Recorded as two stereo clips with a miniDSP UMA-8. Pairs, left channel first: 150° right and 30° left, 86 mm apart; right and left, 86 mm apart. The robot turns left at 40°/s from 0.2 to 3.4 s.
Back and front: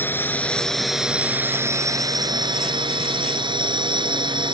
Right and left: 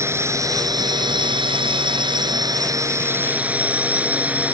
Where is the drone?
145° left; by 4.5 s 20° left.